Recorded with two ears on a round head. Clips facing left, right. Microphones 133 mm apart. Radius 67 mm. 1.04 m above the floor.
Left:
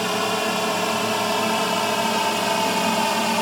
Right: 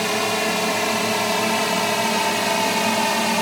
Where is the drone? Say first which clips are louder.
Right 1 dB; 5° right (ahead or behind).